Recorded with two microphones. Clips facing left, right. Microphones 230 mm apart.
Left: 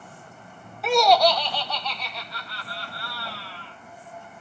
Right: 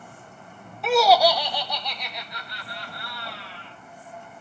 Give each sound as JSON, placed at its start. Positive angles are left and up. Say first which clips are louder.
{"t": 0.8, "sound": "laughter", "louder": "right 1 dB", "side_deg": 0, "distance_m": 0.7}